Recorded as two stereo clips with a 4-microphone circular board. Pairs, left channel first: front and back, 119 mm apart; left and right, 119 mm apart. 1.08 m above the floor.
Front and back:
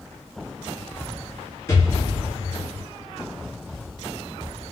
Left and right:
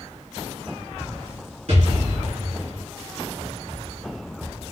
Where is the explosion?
65° right, 1.7 m.